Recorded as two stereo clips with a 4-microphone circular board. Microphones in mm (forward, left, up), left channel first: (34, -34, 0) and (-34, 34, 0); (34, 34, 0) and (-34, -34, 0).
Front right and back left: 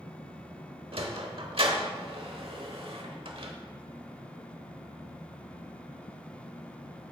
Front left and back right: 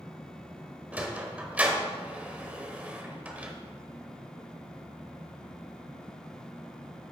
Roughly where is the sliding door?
Behind left.